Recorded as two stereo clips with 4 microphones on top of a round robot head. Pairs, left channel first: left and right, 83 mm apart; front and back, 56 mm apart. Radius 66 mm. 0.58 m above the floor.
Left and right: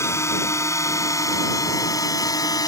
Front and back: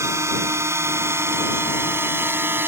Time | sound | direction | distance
0.0 | a drone | 145° left | ?